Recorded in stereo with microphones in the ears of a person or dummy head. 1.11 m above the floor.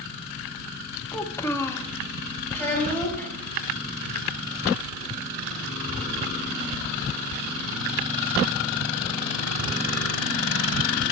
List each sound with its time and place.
1.1 s a child speaking: 15° left (ahead or behind), 0.7 m
2.5 s a child speaking: 15° left (ahead or behind), 3.5 m